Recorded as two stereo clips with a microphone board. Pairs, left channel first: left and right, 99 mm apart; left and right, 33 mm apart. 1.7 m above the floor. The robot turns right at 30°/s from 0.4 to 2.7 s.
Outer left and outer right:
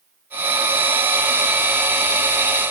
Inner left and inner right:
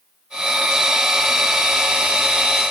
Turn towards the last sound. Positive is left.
No sound to turn to.